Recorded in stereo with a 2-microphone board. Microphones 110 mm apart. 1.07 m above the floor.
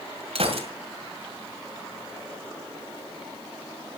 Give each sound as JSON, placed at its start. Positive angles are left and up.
{"t": 0.3, "sound": "a gunshot", "side_deg": -65, "distance_m": 2.0}